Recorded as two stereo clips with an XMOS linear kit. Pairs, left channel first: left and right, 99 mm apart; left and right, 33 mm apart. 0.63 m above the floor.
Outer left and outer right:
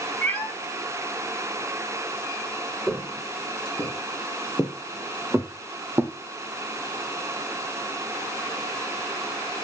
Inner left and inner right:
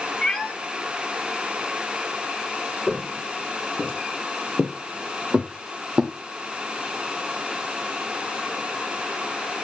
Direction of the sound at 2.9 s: 5° right (ahead or behind).